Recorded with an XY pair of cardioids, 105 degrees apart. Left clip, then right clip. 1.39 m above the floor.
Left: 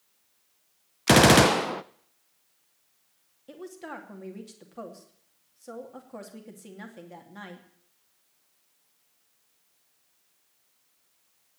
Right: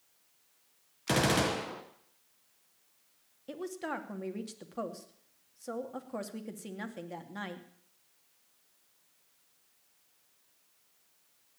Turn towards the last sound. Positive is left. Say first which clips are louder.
# right 3 dB
turn(degrees=-20)